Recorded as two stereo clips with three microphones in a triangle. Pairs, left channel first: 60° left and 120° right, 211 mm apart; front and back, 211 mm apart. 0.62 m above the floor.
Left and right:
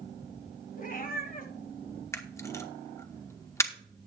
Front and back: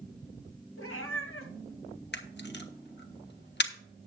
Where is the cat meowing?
10° left, 1.6 m.